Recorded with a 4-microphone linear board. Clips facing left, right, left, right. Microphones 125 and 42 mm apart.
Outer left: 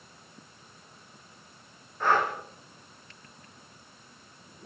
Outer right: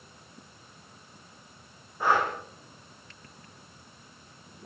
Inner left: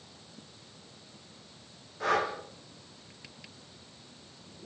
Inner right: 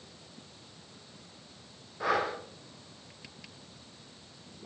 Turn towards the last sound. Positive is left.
turn(degrees=-10)  # may be behind; listen again after turning